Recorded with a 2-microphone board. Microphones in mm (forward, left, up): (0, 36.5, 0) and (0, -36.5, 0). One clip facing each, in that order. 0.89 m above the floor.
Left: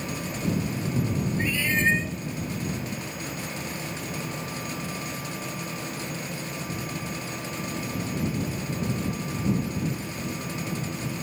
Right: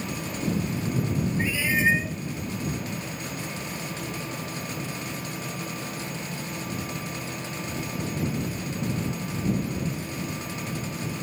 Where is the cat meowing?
10° right (ahead or behind).